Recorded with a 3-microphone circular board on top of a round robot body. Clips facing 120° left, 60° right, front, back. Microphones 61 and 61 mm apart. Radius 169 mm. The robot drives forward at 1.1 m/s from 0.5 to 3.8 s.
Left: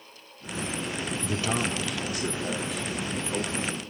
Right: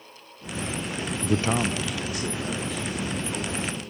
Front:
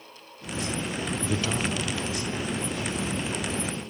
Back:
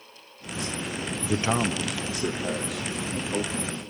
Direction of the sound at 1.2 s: 95° right.